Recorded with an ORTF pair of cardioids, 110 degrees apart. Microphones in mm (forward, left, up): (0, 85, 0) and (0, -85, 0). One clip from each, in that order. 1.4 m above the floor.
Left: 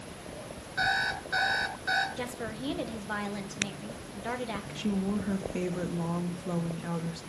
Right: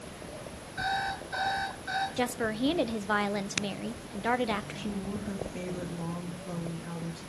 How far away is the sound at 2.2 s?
About 1.3 m.